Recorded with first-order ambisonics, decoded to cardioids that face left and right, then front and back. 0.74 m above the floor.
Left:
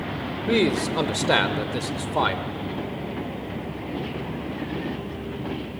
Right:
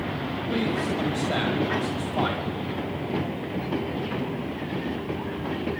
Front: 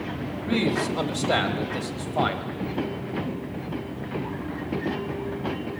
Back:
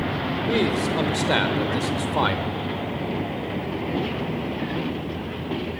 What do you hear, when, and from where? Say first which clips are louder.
0.5 s a man speaking: left 6 dB, back 1 dB; 100° left, 3.5 m; by 2.5 s 140° left, 3 m